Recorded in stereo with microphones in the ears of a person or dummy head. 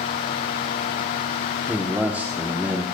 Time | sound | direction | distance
1.7 | a man speaking | 5° right (ahead or behind) | 0.9 m